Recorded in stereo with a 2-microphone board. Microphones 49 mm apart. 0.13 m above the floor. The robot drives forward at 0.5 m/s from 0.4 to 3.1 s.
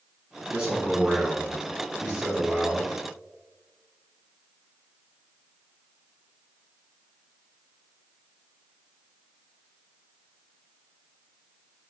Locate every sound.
0.5 s a man speaking: 15° right (ahead or behind), 1.5 m; by 2.9 s 10° right (ahead or behind), 2.5 m